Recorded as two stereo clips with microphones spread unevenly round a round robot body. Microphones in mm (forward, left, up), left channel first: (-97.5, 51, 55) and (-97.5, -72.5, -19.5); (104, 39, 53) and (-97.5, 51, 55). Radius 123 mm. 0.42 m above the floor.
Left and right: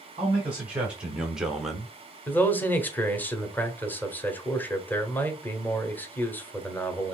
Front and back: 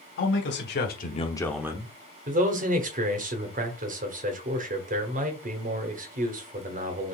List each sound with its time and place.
0.2 s a man speaking: 20° right, 2 m; by 1.9 s 140° right, 1.0 m
2.3 s a man speaking: 160° right, 1.3 m